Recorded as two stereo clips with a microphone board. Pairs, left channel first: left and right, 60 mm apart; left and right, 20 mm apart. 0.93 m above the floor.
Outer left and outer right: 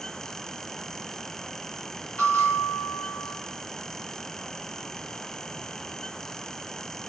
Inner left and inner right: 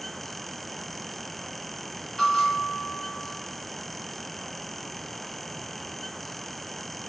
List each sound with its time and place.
2.2 s a bell: 35° left (ahead or behind), 2.0 m